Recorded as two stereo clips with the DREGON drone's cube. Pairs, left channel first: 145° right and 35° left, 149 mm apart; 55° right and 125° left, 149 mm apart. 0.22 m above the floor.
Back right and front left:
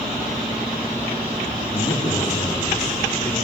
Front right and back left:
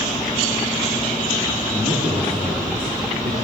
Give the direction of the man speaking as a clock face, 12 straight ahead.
7 o'clock.